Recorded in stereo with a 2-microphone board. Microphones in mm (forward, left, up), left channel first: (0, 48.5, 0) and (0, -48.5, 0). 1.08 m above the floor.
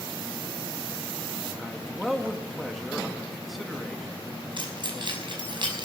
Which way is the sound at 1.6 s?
Centre (ahead or behind).